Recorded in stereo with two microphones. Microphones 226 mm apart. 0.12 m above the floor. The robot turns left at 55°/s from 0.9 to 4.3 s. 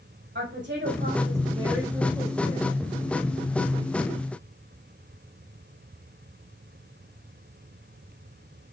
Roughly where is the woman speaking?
Behind right.